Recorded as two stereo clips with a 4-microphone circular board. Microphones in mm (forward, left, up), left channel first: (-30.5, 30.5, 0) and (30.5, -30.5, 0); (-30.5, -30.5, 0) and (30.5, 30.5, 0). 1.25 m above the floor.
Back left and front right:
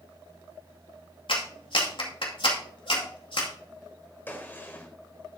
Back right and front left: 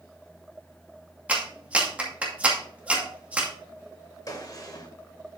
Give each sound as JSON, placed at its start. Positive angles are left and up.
{"t": 1.3, "sound": "a clap", "azimuth_deg": 120, "distance_m": 2.0}
{"t": 4.3, "sound": "a gunshot", "azimuth_deg": -165, "distance_m": 1.4}